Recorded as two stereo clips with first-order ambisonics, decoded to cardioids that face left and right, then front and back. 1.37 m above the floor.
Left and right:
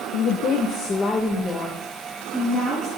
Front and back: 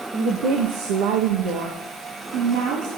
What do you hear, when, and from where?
0.1 s a woman speaking: 120° left, 1.4 m; by 2.9 s 170° right, 4.5 m